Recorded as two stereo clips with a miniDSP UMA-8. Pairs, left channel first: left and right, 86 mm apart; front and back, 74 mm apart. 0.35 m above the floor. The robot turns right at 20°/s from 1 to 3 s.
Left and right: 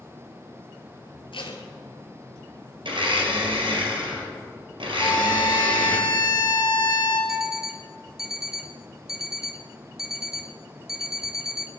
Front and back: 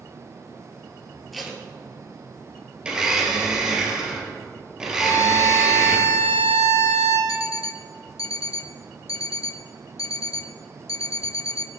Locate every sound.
1.3 s tape being pulled: 90° left, 1.9 m; by 1.6 s 95° left, 1.9 m
2.9 s a blender: 100° right, 3 m
5.0 s a violin: 40° left, 2.5 m
7.3 s an alarm clock: 5° right, 0.6 m